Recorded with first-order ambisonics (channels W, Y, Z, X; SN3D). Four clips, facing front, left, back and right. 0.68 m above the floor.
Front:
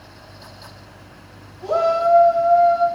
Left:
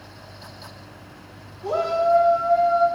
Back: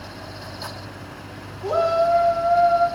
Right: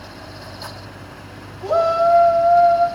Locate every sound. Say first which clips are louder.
1.6 s a shout: right 5 dB, front 2 dB; 50° right, 2.5 m; by 2.9 s 55° right, 3 m